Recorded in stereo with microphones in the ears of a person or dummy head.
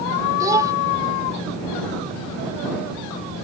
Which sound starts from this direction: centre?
A child speaking, at 0.4 s.